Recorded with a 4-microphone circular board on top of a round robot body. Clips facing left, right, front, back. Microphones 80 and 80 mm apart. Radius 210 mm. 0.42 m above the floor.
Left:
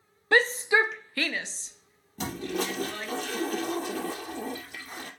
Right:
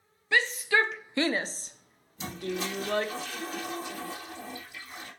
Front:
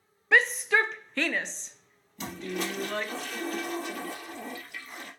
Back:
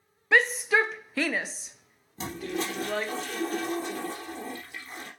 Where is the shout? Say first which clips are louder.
Left 3 dB, back 1 dB; 90° left, 0.9 m; by 3.1 s 95° right, 2 m.